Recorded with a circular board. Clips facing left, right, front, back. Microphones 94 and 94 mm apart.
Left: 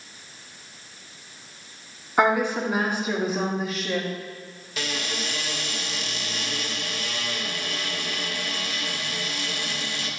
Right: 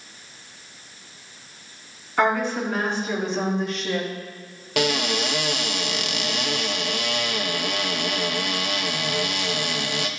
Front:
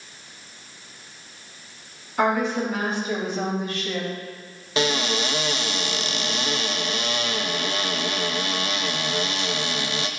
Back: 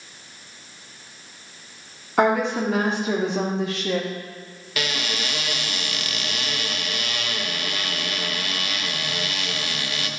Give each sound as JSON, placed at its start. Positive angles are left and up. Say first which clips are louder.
{"t": 2.2, "sound": "a woman speaking", "louder": "left 1 dB, back 2 dB", "azimuth_deg": 165, "distance_m": 2.0}
{"t": 4.8, "sound": "a cupboard door", "louder": "right 9 dB, front 5 dB", "azimuth_deg": -65, "distance_m": 0.6}